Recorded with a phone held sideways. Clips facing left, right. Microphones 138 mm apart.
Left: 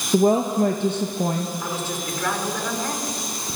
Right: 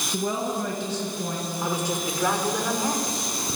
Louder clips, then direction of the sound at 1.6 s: Right 2 dB; 15° right (ahead or behind).